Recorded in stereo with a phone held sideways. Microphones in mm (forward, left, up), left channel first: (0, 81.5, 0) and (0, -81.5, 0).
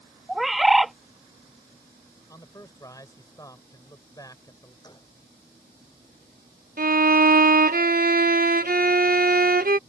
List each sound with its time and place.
0.3 s a bird: centre (ahead or behind)
2.3 s a man speaking: 20° left (ahead or behind)
4.8 s a gunshot: 25° left (ahead or behind)
6.8 s a violin: 65° right (ahead or behind)